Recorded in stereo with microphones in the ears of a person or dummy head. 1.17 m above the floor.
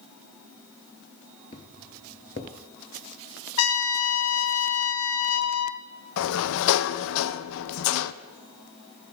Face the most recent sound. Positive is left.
turn(degrees=75)  # may be behind; listen again after turning